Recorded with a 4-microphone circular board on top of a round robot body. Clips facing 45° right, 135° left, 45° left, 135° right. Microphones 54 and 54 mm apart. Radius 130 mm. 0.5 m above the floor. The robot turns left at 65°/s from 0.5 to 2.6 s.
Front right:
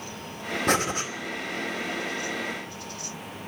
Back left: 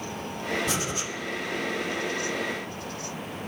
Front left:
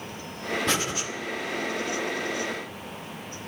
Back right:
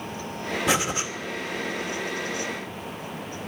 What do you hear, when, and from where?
0.7 s breathing: 55° right, 2.5 m; by 1.1 s 80° right, 2.5 m